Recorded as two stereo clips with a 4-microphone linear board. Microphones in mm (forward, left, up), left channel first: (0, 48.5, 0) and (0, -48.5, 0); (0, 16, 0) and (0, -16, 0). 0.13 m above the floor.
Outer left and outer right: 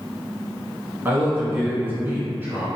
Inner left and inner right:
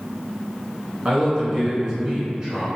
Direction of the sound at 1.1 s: 20° right (ahead or behind).